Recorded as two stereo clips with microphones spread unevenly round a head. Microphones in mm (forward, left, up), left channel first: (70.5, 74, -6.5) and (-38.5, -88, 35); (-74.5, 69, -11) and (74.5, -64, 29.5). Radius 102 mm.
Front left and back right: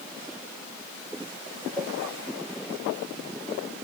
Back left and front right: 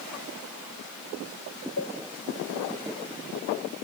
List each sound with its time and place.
1.8 s a cowbell: 155° left